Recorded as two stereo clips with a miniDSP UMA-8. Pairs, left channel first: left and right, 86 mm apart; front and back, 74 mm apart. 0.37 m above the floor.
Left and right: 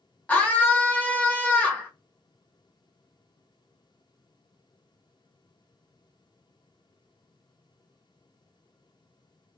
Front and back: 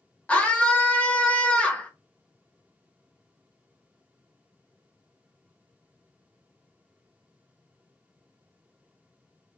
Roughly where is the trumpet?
I don't hear a trumpet.